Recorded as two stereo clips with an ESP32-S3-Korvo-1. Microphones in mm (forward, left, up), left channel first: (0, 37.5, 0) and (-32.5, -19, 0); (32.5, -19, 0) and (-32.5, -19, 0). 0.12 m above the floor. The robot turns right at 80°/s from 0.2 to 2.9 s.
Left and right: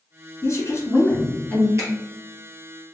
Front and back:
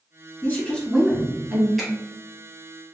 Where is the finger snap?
90° right, 1.8 m; by 1.9 s 80° right, 1.8 m.